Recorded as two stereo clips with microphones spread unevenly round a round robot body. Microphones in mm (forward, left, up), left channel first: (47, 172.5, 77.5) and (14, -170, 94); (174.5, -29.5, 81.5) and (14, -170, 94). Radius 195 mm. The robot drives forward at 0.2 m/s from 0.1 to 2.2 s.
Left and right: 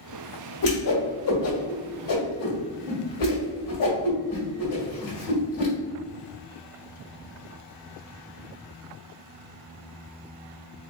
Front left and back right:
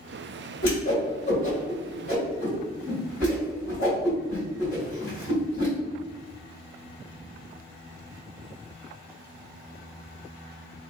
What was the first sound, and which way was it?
A whoosh, 90° left.